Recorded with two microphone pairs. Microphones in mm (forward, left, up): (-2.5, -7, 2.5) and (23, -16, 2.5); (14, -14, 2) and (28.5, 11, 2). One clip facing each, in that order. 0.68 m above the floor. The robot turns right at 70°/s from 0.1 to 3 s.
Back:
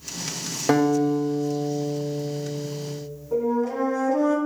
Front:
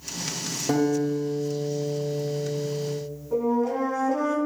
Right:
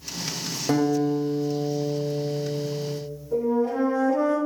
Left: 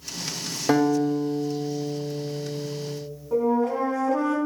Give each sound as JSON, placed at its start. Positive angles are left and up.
{"t": 0.7, "sound": "a guitar", "azimuth_deg": 125, "distance_m": 2.0}
{"t": 3.3, "sound": "a flute", "azimuth_deg": 70, "distance_m": 3.0}